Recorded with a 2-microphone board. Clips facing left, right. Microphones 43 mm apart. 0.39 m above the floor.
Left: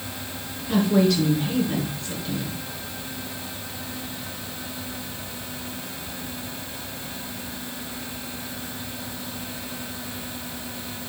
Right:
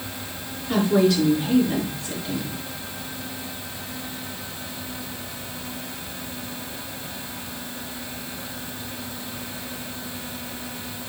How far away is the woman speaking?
About 6 m.